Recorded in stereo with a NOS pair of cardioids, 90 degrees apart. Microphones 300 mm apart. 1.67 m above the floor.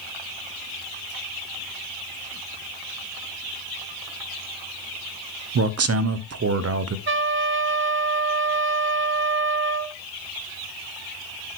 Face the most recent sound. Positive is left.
turn(degrees=-40)